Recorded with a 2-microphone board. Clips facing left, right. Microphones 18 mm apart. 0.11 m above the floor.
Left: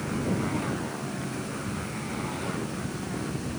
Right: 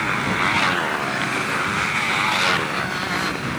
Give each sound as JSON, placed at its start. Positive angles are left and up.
{"t": 0.0, "sound": "a motorcycle", "side_deg": -70}